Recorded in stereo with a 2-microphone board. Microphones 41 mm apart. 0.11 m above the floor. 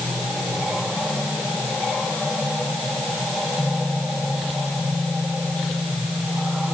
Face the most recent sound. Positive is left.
No sound to turn to.